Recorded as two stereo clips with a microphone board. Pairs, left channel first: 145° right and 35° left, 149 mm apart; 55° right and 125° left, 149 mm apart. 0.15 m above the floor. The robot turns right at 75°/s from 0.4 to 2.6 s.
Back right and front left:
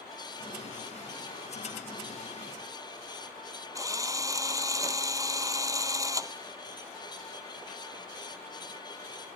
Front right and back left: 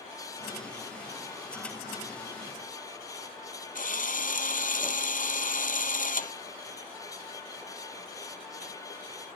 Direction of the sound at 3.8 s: 35° right.